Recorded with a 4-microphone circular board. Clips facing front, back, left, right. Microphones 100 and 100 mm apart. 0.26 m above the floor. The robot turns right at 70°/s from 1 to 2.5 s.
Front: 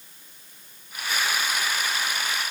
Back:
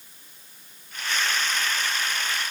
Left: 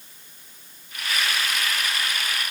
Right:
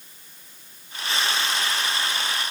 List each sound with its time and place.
Only background noise.